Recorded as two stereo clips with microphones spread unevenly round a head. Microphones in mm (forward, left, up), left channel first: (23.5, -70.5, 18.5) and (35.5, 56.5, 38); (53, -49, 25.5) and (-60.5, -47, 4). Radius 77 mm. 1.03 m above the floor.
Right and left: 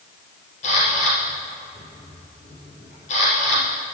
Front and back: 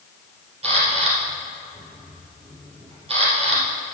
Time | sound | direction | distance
0.6 | a camera shutter | 145° right | 3.5 m